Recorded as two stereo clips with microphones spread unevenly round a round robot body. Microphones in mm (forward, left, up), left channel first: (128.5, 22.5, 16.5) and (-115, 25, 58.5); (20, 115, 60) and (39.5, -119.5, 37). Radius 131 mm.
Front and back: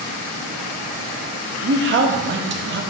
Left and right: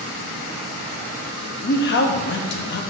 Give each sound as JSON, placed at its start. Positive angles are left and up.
{"t": 1.6, "sound": "a man speaking", "azimuth_deg": 135, "distance_m": 1.0}